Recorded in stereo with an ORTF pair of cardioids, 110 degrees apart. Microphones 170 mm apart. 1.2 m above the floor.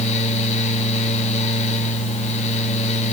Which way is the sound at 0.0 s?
45° left.